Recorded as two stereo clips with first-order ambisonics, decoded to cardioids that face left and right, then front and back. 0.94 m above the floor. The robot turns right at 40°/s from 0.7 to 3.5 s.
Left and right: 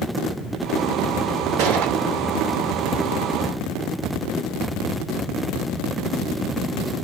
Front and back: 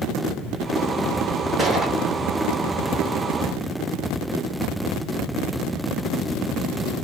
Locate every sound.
1.6 s a gunshot: 100° right, 1.1 m; by 2.0 s 85° right, 1.1 m